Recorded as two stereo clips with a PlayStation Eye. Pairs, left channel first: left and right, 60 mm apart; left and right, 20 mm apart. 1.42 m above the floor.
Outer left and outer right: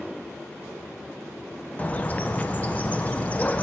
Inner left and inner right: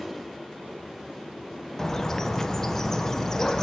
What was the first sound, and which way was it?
A bird, 25° left (ahead or behind).